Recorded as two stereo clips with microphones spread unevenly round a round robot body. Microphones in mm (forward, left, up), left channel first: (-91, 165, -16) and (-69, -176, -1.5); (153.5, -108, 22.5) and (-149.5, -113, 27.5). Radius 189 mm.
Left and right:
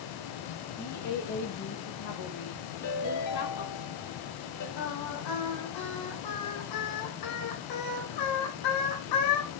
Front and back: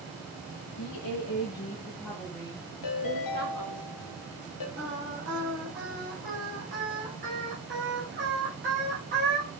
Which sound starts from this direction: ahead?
A woman speaking, at 0.8 s.